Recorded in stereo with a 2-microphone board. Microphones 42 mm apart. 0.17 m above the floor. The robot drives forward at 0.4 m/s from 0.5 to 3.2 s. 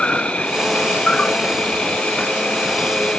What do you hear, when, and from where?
0.0 s an insect: 25° left (ahead or behind)